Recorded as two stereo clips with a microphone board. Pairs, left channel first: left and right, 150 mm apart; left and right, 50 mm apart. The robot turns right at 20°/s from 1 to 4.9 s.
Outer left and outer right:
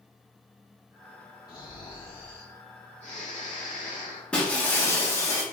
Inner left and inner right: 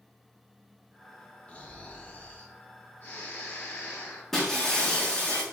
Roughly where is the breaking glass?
Centre.